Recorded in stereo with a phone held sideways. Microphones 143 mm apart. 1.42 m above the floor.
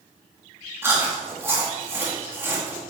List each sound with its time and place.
0.8 s chewing: 15° right (ahead or behind), 2.5 m